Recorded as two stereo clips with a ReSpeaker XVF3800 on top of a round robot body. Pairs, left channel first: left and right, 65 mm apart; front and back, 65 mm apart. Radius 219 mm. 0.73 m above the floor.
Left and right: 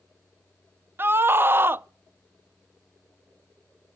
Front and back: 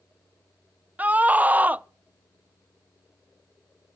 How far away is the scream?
About 0.5 m.